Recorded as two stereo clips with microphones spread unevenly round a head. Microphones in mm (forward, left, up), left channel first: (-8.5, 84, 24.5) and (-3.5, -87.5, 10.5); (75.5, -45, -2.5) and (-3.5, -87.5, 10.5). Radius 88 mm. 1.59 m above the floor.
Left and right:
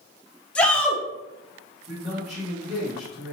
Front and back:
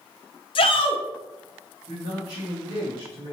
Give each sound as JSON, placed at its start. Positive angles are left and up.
{"t": 0.6, "sound": "a shout", "azimuth_deg": 10, "distance_m": 0.7}
{"t": 1.9, "sound": "a man speaking", "azimuth_deg": -160, "distance_m": 1.4}